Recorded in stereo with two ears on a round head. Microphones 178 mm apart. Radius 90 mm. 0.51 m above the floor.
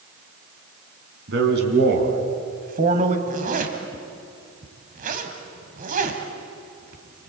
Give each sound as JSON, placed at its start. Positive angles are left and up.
{"t": 1.3, "sound": "a man speaking", "side_deg": -65, "distance_m": 5.0}
{"t": 3.3, "sound": "a zipper", "side_deg": -45, "distance_m": 2.5}